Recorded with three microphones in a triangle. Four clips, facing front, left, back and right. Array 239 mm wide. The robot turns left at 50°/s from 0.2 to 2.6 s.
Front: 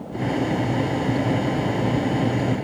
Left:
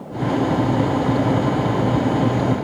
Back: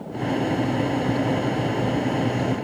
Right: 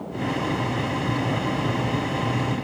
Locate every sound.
Only background noise.